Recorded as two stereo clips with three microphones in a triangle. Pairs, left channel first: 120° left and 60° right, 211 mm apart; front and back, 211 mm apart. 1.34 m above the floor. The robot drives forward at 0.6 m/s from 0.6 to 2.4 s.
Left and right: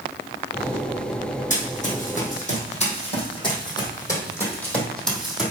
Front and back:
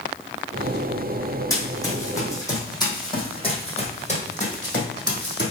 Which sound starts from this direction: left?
Running footsteps, at 1.5 s.